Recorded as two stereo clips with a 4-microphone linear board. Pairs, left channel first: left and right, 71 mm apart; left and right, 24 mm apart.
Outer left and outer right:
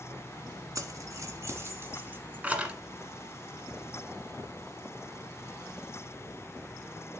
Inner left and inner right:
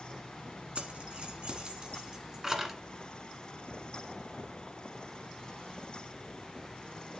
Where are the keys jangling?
55° right (ahead or behind), 1.3 m; by 2.8 s 10° right (ahead or behind), 1.3 m.